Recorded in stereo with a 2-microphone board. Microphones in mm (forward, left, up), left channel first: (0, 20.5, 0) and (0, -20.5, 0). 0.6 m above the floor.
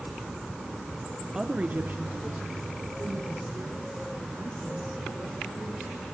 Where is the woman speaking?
15° right (ahead or behind), 1.0 m; by 6.0 s 50° right (ahead or behind), 7 m.